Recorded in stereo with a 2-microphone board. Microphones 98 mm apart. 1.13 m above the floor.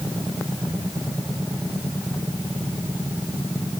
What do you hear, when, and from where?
Only background noise.